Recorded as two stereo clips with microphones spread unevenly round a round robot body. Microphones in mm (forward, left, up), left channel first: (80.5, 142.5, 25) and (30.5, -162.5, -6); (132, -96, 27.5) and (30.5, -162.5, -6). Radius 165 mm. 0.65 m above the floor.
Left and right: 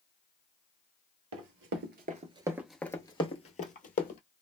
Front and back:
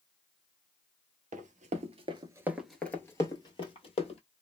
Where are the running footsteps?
150° right, 0.9 m; by 4.2 s 25° left, 1.3 m.